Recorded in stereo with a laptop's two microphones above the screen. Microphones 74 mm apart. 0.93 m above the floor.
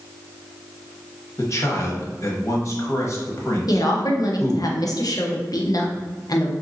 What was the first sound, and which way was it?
A man speaking, 45° left (ahead or behind).